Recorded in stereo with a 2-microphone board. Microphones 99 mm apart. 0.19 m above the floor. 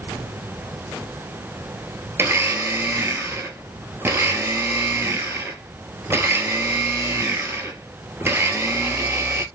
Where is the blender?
25° right (ahead or behind), 0.5 m.